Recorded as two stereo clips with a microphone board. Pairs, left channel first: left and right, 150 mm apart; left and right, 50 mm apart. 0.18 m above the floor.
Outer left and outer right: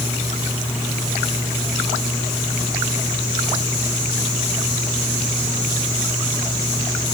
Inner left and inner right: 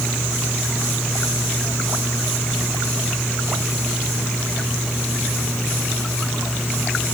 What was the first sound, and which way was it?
Only background noise.